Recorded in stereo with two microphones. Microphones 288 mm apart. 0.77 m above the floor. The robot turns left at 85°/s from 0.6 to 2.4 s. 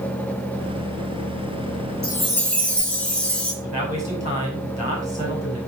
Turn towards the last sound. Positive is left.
turn(degrees=-25)  # may be behind; listen again after turning